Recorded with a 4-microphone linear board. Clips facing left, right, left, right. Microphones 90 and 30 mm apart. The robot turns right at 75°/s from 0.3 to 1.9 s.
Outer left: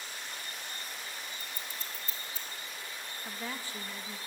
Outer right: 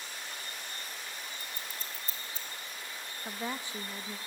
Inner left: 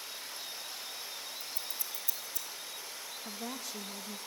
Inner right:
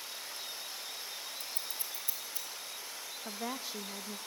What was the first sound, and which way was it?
Scissors, 70° right (ahead or behind).